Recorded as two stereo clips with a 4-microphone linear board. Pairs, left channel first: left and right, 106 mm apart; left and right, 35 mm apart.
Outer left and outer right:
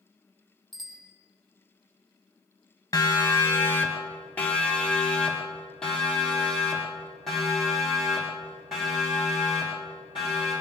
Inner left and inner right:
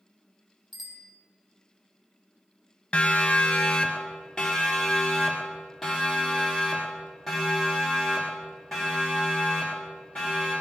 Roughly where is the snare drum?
No snare drum in this recording.